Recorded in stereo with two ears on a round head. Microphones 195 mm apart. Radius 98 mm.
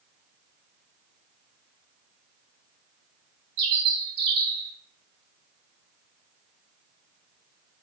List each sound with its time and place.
3.6 s a bird: 50° right (ahead or behind), 0.8 m